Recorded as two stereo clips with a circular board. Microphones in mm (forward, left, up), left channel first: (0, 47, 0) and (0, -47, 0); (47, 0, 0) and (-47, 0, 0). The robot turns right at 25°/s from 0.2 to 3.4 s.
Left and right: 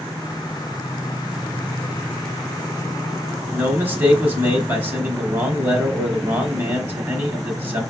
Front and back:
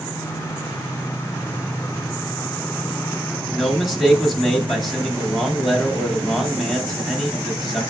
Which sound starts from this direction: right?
A man speaking, at 3.5 s.